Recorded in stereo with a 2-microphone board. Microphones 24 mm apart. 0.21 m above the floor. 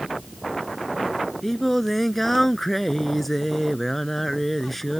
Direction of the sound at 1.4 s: 10° left (ahead or behind).